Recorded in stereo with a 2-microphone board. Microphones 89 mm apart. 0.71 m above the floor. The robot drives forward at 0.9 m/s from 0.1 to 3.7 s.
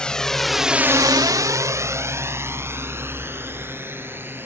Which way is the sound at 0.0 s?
10° left (ahead or behind).